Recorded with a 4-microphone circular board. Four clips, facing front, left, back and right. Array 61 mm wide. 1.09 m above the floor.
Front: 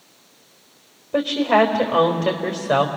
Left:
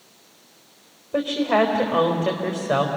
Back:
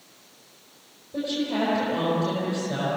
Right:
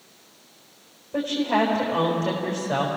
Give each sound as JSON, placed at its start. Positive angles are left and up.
{"t": 1.1, "sound": "a woman speaking", "azimuth_deg": 20, "distance_m": 4.0}